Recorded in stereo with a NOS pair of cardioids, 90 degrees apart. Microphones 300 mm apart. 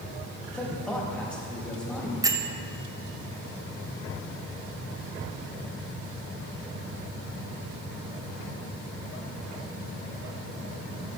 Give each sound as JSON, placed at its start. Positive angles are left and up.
{"t": 0.5, "sound": "a man speaking", "azimuth_deg": 5, "distance_m": 4.0}
{"t": 2.2, "sound": "a bell", "azimuth_deg": -10, "distance_m": 1.0}